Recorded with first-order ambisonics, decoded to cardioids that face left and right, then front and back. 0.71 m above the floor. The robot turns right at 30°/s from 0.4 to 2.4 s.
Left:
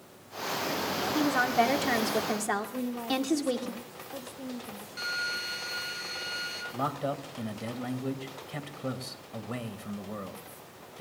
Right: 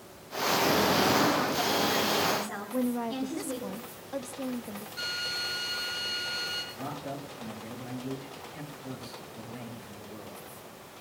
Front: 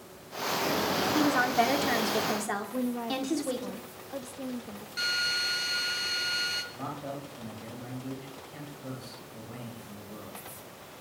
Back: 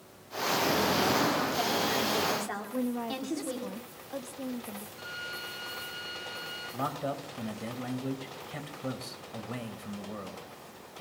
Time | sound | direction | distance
1.1 | a woman speaking | 35° left | 1.9 m
2.7 | a woman speaking | 95° right | 0.7 m
5.0 | a drill | 5° left | 5.5 m
6.7 | a man speaking | 120° left | 3 m